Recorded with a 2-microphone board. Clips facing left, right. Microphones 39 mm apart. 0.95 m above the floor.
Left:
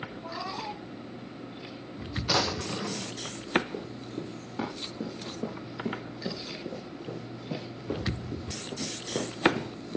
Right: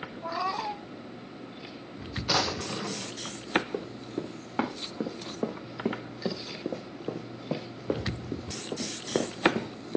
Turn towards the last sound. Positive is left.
turn(degrees=-45)  # may be behind; listen again after turning